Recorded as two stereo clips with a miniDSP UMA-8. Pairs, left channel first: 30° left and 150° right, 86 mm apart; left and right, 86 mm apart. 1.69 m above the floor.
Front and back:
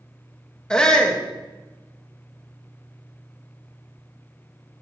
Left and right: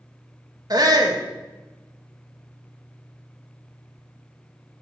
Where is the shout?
50° right, 1.9 m.